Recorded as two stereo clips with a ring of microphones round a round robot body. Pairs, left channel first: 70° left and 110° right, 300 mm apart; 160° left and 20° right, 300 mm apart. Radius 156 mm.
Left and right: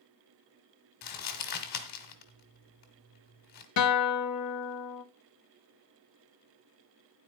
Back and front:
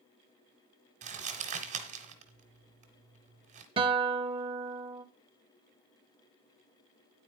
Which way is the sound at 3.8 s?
45° left.